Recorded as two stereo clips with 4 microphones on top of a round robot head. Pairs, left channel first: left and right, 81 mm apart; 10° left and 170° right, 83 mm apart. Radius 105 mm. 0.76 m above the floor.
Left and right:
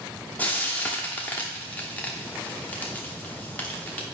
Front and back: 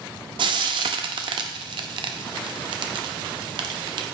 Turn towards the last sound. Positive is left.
turn(degrees=165)